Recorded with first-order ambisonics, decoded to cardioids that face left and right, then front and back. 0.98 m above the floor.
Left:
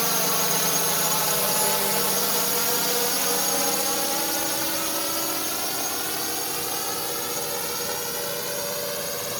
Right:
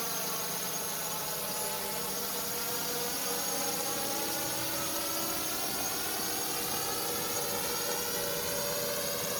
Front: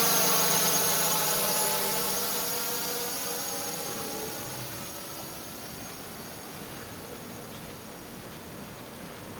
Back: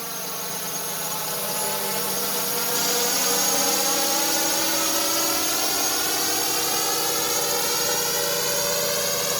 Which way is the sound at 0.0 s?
55° left.